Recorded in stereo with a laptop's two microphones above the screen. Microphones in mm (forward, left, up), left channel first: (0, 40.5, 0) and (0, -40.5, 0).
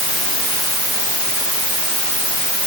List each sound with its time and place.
Only background noise.